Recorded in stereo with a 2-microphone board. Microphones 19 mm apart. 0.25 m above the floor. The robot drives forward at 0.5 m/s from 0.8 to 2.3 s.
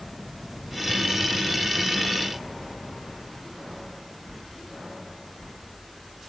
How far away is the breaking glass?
No breaking glass in this recording.